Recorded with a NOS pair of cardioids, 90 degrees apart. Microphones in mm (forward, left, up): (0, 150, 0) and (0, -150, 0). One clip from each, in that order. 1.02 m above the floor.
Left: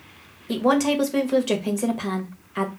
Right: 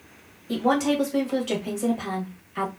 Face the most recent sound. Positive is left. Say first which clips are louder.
# left 2 dB
turn(degrees=25)